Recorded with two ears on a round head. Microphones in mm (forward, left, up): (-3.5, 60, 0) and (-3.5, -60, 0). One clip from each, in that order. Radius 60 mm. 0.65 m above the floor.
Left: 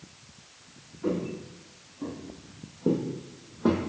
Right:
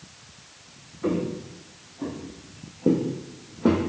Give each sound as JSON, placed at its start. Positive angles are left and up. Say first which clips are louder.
{"t": 1.0, "sound": "footsteps", "louder": "right 4 dB", "side_deg": -35, "distance_m": 2.5}